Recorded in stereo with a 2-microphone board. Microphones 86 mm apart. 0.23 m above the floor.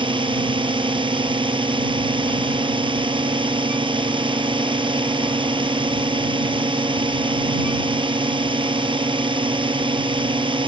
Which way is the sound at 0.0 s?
75° right (ahead or behind).